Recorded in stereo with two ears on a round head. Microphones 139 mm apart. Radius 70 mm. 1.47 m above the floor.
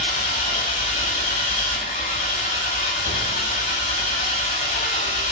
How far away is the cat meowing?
I don't hear a cat meowing.